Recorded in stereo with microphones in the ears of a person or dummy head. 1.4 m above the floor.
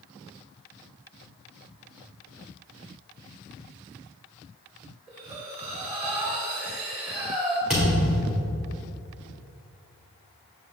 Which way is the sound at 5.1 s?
15° right (ahead or behind).